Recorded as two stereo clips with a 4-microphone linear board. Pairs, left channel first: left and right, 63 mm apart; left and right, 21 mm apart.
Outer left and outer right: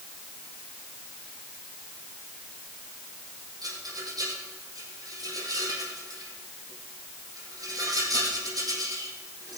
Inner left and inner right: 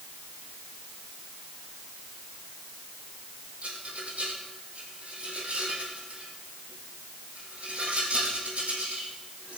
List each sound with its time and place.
3.6 s a rattle: 70° right (ahead or behind), 5.5 m